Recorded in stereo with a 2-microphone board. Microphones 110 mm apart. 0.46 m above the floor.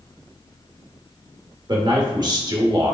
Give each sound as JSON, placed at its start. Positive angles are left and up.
{"t": 1.7, "sound": "a man speaking", "side_deg": -40, "distance_m": 0.9}